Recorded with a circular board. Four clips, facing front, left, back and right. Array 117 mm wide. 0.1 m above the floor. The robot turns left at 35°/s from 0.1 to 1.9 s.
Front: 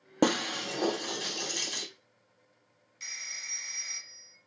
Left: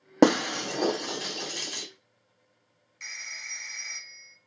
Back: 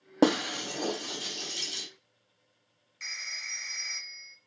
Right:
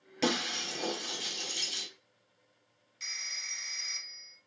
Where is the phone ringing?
135° left, 0.7 m.